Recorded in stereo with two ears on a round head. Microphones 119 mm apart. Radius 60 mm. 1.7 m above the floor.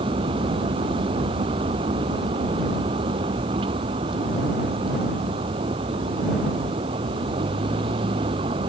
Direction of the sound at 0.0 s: 40° right (ahead or behind).